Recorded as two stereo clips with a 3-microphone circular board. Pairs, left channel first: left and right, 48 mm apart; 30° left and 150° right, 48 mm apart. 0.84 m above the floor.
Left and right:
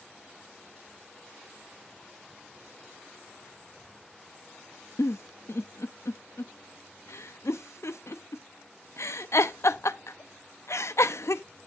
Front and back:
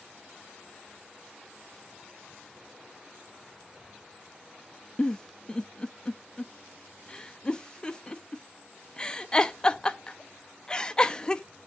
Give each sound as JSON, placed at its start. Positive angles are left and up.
{"t": 5.0, "sound": "a giggle", "azimuth_deg": 100, "distance_m": 0.6}